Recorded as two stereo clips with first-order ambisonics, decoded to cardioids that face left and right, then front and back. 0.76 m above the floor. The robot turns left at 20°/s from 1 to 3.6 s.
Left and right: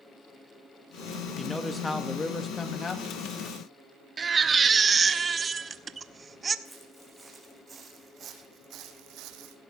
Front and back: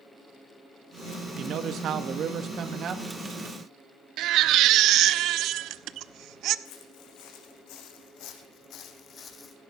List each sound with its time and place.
1.4 s a man speaking: 175° left, 1.0 m; by 3.0 s 140° left, 1.0 m
4.2 s a baby crying: 160° right, 0.6 m
6.7 s footsteps: 5° right, 3.5 m; by 9.6 s 70° right, 2.0 m